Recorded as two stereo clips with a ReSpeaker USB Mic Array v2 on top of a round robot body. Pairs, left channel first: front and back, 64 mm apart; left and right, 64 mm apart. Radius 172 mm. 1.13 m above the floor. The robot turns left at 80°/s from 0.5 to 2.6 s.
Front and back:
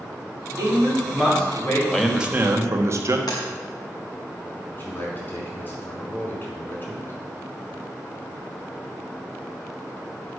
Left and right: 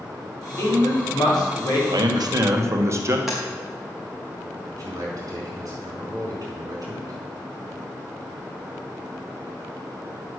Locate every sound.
0.6 s a man speaking: 145° left, 3.5 m; by 1.8 s 45° left, 3.5 m
1.9 s a man speaking: 80° right, 1.2 m; by 3.2 s 135° right, 1.2 m
3.3 s tapping: 5° right, 0.6 m
4.7 s a man speaking: 55° right, 4.5 m